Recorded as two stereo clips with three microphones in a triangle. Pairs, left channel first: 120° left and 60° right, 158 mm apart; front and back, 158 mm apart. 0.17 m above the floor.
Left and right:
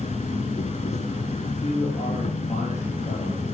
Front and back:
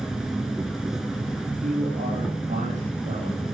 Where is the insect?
95° left, 0.7 m.